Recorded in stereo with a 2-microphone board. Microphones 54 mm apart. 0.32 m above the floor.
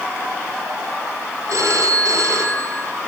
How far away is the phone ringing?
About 2.5 m.